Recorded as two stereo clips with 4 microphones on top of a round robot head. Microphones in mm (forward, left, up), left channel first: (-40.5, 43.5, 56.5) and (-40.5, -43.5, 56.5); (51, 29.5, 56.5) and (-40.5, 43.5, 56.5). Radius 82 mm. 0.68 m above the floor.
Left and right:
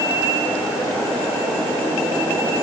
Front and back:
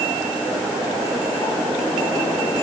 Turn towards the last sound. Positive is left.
No sound to turn to.